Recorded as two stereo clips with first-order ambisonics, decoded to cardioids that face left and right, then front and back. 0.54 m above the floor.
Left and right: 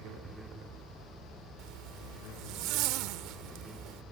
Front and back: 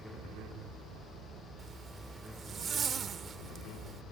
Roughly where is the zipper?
Behind right.